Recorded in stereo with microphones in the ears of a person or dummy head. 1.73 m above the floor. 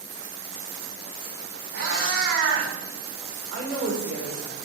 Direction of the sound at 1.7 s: 65° right (ahead or behind).